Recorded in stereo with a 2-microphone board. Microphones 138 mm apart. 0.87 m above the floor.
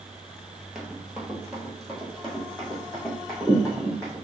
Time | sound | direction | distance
0.8 | running footsteps | 5° right (ahead or behind) | 1.1 m